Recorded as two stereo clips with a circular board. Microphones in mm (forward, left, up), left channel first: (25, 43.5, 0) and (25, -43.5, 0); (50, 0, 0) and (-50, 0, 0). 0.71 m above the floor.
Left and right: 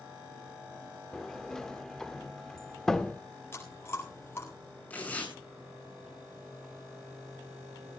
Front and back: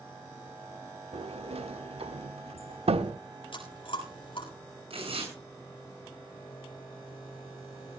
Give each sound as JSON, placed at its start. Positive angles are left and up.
{"t": 1.1, "sound": "a sliding door", "azimuth_deg": 175, "distance_m": 0.8}
{"t": 3.5, "sound": "chewing", "azimuth_deg": 30, "distance_m": 7.5}
{"t": 4.9, "sound": "tearing paper", "azimuth_deg": 160, "distance_m": 8.0}